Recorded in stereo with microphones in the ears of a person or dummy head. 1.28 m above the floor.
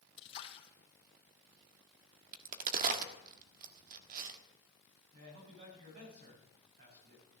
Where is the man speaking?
55° right (ahead or behind), 8.5 m.